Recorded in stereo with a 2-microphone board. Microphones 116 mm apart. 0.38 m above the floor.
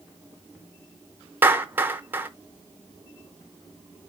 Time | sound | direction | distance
1.4 | a clap | 20° right (ahead or behind) | 0.8 m